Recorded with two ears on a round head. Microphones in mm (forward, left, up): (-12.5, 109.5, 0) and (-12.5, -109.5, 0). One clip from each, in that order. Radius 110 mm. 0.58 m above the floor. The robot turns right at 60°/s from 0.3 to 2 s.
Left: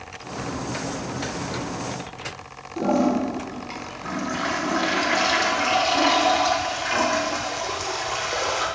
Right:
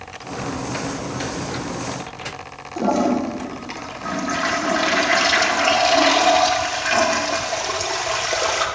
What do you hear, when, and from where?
2.8 s a toilet flushing: 15° right (ahead or behind), 0.6 m